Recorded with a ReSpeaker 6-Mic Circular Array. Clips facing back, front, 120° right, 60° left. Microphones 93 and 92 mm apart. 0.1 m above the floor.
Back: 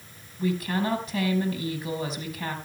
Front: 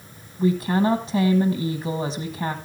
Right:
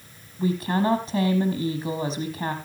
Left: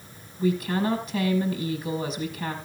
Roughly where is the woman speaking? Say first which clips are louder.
Front 6 dB, right 1 dB; ahead right.